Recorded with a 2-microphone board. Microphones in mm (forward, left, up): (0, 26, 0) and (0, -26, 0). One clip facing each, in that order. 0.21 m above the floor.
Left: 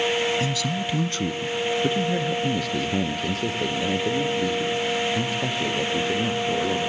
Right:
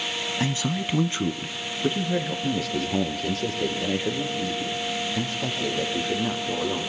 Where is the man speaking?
35° right (ahead or behind), 1.2 m; by 6.8 s 5° left (ahead or behind), 7.5 m.